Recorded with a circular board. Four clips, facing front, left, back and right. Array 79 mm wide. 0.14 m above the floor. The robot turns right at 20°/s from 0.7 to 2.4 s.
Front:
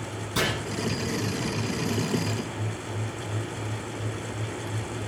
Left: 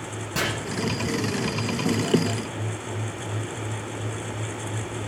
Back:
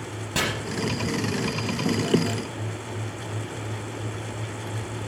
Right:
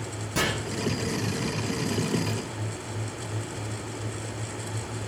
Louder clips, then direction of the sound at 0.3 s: Even, even; 170° left.